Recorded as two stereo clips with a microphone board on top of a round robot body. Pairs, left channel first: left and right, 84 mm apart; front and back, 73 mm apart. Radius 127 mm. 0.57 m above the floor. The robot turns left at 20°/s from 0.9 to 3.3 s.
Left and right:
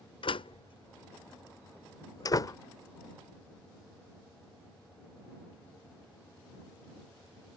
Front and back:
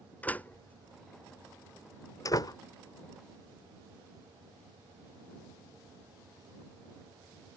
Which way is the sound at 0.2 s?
70° left.